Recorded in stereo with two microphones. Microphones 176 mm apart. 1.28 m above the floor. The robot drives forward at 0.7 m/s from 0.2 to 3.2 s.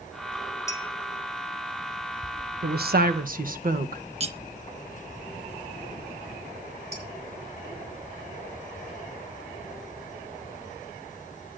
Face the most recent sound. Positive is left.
turn(degrees=-65)  # may be behind; listen again after turning